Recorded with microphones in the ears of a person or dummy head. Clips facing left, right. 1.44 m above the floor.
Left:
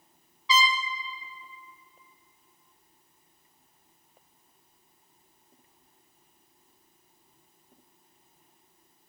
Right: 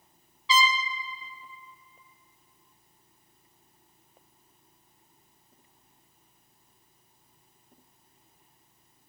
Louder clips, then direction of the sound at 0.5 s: Right 1 dB; 35° right (ahead or behind).